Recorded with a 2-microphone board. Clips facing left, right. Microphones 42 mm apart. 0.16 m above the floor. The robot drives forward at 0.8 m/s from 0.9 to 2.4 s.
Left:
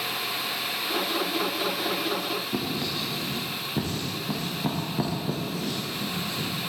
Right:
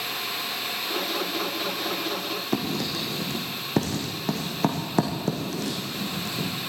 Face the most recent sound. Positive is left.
turn(degrees=-85)